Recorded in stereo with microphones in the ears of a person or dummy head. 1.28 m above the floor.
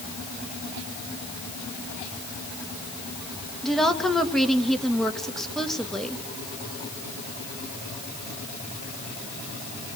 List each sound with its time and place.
3.6 s a woman speaking: centre (ahead or behind), 2 m